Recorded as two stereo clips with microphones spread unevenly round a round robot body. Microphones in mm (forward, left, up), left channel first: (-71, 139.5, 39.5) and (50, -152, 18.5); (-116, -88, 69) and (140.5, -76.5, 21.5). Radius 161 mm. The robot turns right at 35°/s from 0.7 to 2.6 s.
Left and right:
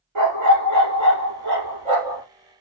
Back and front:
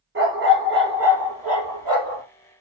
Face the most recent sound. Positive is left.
turn(degrees=30)